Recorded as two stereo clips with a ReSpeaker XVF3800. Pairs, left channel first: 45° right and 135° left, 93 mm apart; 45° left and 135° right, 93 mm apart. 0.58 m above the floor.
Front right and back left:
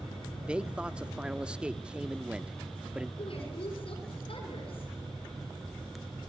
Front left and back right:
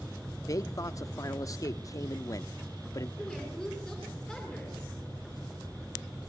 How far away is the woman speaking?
About 7.5 m.